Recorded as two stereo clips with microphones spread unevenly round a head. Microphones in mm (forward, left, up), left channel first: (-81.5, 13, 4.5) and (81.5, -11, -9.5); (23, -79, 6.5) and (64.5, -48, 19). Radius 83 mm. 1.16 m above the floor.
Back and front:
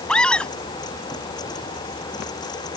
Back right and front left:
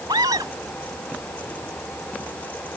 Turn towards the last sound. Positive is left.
turn(degrees=85)